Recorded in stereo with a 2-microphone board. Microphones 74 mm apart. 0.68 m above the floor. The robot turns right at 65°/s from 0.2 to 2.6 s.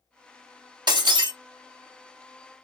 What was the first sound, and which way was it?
Breaking glass, 65° right (ahead or behind).